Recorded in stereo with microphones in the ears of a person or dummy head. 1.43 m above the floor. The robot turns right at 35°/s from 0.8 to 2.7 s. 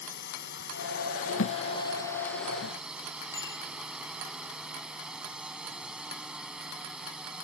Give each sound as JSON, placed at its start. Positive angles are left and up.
{"t": 0.0, "sound": "a drone", "azimuth_deg": 120}
{"t": 1.4, "sound": "a thud", "side_deg": 70}
{"t": 3.3, "sound": "a bicycle bell", "side_deg": 20}